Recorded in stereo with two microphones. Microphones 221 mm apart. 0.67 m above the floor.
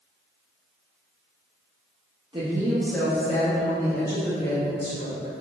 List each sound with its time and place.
2.3 s a woman speaking: 20° right (ahead or behind), 0.7 m; by 5.3 s 55° left (ahead or behind), 1.6 m